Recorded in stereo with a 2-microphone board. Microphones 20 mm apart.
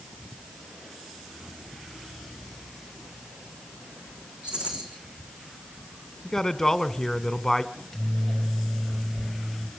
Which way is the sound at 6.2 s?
25° left (ahead or behind).